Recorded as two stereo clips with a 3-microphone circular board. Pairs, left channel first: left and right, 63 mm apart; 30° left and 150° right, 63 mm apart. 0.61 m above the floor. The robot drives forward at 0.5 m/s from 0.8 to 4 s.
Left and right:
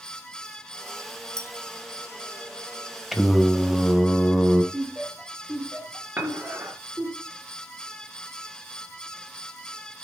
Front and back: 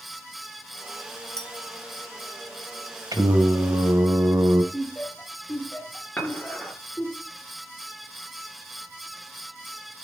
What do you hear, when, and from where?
1.4 s a clink: 50° right, 2 m; by 1.5 s 55° right, 2.0 m
3.1 s singing: 175° right, 1.9 m
4.7 s laughter: 30° right, 2.5 m
6.2 s dishes clattering: 40° right, 8.5 m